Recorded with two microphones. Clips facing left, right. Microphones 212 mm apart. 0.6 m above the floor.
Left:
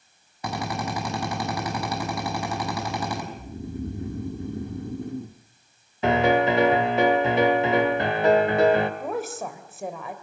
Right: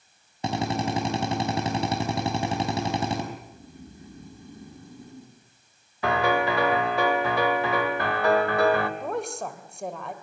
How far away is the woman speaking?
About 3 m.